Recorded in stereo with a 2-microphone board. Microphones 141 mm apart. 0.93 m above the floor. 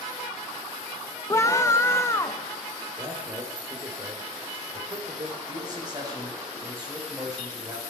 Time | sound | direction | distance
1.3 | a scream | 25° left (ahead or behind) | 0.7 m
3.0 | a man speaking | 35° right (ahead or behind) | 3.5 m
5.5 | a man speaking | 30° right (ahead or behind) | 5.5 m